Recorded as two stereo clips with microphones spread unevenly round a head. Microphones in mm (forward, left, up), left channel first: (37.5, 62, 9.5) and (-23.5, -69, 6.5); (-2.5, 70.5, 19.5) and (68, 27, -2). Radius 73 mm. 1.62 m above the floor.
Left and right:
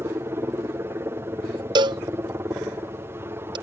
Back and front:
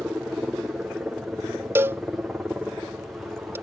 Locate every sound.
0.0 s a helicopter: 75° right
1.8 s a cowbell: 105° right